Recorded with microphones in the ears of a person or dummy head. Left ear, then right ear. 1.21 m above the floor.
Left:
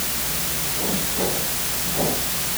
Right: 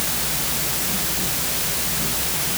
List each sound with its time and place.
Only background noise.